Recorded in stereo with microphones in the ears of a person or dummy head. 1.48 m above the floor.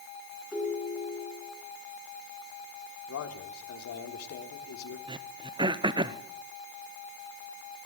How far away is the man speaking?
About 3.5 m.